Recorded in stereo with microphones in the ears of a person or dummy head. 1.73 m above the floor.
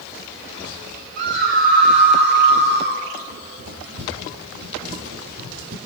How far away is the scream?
About 7.5 m.